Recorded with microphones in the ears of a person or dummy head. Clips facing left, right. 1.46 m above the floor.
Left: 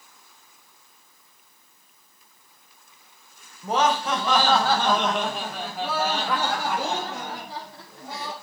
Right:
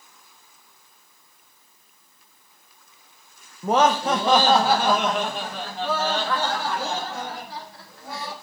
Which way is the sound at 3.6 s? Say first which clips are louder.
Right 4 dB; 55° right (ahead or behind).